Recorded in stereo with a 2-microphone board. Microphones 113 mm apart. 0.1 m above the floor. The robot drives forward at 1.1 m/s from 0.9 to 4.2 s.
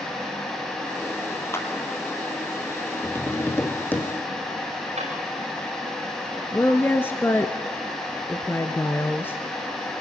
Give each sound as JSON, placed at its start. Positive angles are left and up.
{"t": 1.5, "sound": "a clap", "side_deg": 20, "distance_m": 2.5}
{"t": 3.0, "sound": "tapping", "side_deg": 25, "distance_m": 2.0}
{"t": 5.0, "sound": "a drawer", "side_deg": -75, "distance_m": 10.0}
{"t": 6.5, "sound": "a woman speaking", "side_deg": 20, "distance_m": 1.3}